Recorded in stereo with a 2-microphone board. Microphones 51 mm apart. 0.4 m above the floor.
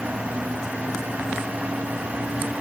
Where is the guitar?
No guitar in this recording.